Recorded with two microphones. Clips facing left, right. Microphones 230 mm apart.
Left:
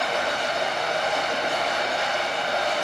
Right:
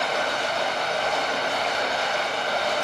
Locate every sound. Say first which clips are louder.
0.0 s running water: even; 20° left (ahead or behind), 1.6 m